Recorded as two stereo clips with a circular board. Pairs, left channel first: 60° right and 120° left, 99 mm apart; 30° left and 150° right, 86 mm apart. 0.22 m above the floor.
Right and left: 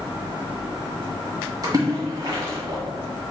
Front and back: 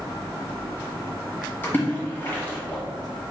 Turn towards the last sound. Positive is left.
turn(degrees=90)